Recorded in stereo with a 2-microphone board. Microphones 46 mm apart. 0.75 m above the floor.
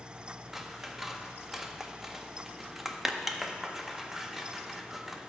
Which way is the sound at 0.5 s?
5° right (ahead or behind).